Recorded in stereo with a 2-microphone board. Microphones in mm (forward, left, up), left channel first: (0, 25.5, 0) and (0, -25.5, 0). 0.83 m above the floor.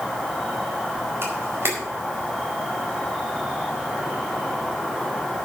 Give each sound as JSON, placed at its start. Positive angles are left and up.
{"t": 0.0, "sound": "an insect", "side_deg": -5, "distance_m": 3.0}
{"t": 1.2, "sound": "a camera shutter", "side_deg": -55, "distance_m": 4.5}